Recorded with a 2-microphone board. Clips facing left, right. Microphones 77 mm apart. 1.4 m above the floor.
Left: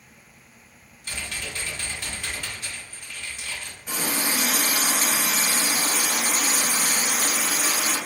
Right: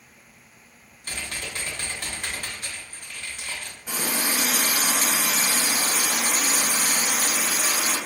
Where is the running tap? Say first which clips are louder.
Even; 10° right (ahead or behind), 2.0 m.